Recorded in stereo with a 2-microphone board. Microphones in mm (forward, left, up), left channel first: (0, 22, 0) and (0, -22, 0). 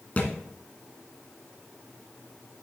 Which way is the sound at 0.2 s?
35° left (ahead or behind).